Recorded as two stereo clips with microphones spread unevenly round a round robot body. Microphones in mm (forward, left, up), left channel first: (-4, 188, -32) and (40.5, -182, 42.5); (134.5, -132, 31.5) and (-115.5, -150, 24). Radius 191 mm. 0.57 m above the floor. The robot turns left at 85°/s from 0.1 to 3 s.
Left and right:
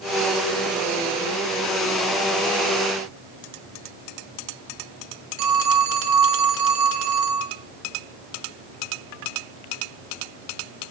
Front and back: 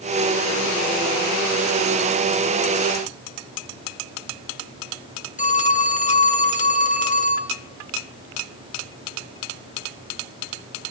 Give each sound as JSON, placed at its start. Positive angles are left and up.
{"t": 5.4, "sound": "a phone ringing", "azimuth_deg": -60, "distance_m": 1.4}